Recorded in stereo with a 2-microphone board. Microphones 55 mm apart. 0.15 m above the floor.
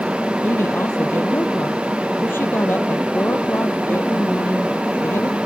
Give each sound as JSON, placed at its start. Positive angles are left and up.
{"t": 0.4, "sound": "a woman speaking", "side_deg": 45}